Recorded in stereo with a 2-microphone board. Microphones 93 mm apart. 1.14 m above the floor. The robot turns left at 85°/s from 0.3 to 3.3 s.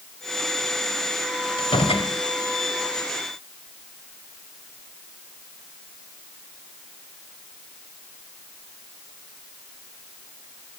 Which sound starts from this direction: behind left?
A door slam, at 1.6 s.